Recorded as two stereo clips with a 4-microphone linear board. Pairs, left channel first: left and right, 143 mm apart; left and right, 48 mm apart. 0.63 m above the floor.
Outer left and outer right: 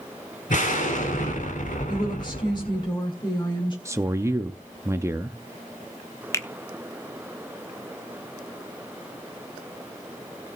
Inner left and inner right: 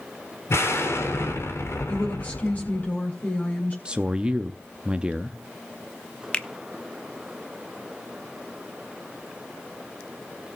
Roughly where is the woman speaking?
Left.